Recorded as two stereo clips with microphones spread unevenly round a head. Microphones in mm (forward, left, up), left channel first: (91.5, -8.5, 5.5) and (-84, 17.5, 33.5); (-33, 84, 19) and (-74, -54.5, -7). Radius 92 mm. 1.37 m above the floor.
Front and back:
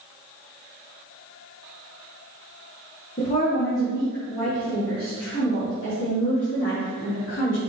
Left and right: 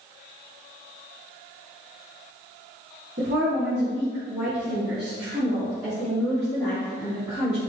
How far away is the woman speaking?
About 2.0 m.